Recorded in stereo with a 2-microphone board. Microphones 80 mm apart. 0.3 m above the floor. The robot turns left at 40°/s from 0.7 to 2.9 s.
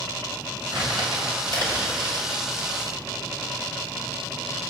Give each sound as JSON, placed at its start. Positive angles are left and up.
{"t": 0.7, "sound": "crumpling", "side_deg": -70, "distance_m": 4.0}